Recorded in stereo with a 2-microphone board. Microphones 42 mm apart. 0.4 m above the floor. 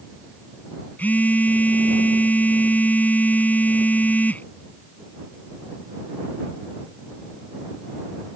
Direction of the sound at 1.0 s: 45° left (ahead or behind).